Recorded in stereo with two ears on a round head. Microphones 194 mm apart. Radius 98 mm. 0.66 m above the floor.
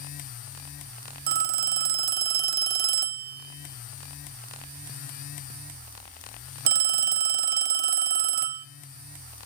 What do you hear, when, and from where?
1.3 s a phone ringing: 45° right (ahead or behind), 0.5 m